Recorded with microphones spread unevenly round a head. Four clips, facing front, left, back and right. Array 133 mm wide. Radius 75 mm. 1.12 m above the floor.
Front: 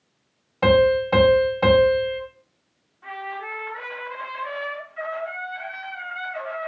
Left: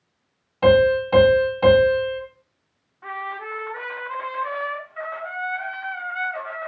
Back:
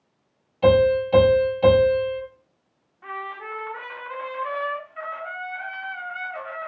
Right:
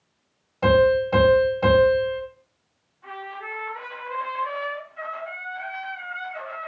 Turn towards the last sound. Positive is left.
turn(degrees=105)